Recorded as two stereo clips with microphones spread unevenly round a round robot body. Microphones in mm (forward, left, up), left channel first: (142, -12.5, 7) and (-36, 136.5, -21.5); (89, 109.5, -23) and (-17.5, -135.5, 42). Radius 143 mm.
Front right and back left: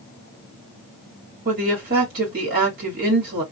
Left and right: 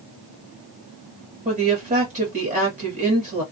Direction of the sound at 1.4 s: 175° left.